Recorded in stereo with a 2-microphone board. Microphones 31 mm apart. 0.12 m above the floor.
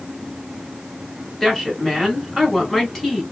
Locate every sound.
1.4 s a woman speaking: 10° left (ahead or behind), 1.3 m